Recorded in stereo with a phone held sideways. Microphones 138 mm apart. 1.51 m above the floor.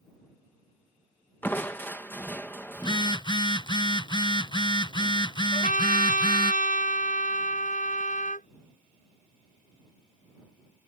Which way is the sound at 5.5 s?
75° left (ahead or behind).